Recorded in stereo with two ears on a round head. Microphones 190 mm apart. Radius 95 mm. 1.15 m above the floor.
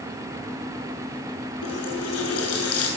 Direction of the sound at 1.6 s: 85° left.